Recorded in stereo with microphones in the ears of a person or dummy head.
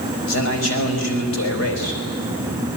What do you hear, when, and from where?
0.3 s a man speaking: 70° left (ahead or behind), 5 m